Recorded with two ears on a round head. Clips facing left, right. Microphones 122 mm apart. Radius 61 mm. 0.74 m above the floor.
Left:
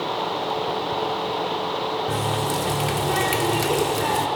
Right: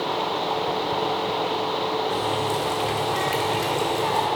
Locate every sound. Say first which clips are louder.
2.1 s a running tap: even; 65° left (ahead or behind), 1.0 m